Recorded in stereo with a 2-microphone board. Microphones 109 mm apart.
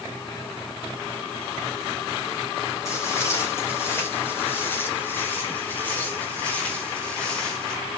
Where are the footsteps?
30° left (ahead or behind), 8 m; by 7.8 s 5° left (ahead or behind), 7 m.